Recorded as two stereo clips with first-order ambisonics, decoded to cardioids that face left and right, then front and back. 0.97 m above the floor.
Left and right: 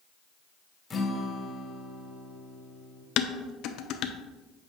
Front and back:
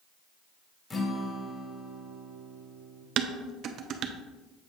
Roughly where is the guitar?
Ahead left.